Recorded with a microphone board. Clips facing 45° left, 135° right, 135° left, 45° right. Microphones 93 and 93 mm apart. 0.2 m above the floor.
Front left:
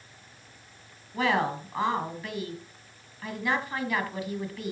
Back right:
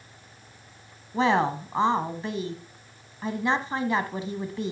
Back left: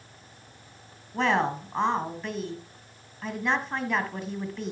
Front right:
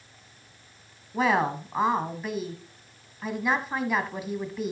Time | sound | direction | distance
1.1 | a woman speaking | 120° right | 1.3 m